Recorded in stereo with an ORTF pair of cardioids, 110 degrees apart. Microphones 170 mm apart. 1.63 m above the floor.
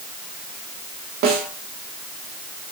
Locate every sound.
1.2 s a snare drum: 65° right, 2.5 m